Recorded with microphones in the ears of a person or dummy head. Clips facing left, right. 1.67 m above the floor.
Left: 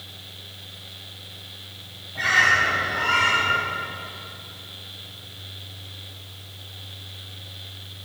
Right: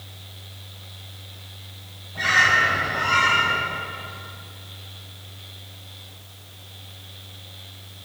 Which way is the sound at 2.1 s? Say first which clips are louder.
Right 1 dB; 5° left (ahead or behind).